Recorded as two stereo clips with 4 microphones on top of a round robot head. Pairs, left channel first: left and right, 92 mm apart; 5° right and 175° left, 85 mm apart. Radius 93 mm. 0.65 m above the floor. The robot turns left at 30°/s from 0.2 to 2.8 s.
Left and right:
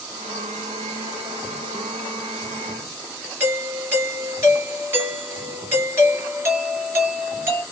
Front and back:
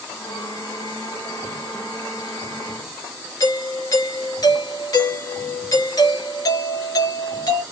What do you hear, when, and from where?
3.4 s a doorbell: 30° right, 3 m